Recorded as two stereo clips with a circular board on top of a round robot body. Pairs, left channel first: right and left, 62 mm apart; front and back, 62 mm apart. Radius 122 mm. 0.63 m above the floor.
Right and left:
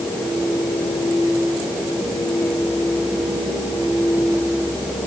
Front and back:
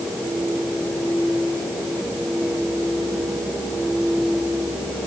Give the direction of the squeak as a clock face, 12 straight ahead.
I don't hear a squeak.